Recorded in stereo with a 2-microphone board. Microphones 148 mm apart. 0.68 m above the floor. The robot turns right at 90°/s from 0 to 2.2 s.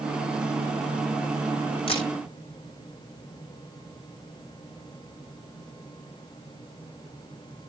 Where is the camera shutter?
35° left (ahead or behind), 5.5 m; by 2.1 s 55° left (ahead or behind), 5.5 m.